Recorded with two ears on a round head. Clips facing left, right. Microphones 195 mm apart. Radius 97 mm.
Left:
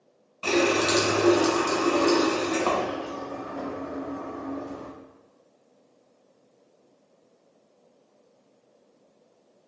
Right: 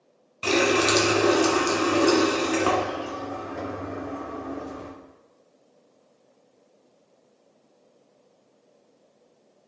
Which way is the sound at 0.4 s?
25° right (ahead or behind).